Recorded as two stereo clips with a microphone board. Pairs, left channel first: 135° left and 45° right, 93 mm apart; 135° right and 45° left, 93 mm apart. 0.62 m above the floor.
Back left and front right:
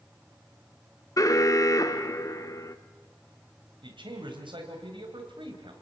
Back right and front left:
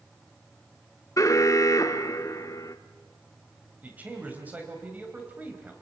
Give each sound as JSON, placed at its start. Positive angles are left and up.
{"t": 1.2, "sound": "an alarm", "azimuth_deg": 180, "distance_m": 0.9}
{"t": 3.8, "sound": "a man speaking", "azimuth_deg": -25, "distance_m": 3.5}